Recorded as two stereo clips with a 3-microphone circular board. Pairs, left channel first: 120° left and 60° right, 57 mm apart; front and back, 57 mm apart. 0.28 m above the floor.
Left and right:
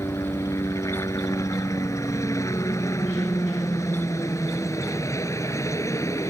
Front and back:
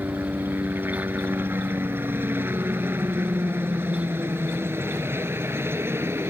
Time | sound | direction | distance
0.0 | a helicopter | 130° left | ?